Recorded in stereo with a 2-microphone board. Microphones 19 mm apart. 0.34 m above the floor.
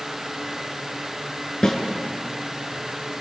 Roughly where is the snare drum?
Left.